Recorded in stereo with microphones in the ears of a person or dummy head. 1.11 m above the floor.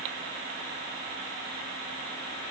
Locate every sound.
Only background noise.